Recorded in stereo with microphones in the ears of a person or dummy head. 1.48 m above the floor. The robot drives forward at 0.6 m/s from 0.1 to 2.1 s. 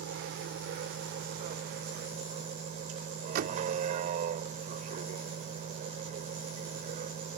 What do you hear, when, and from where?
0.0 s a vehicle: 55° right (ahead or behind); by 7.4 s 40° right (ahead or behind)
3.4 s a door slam: 45° right (ahead or behind)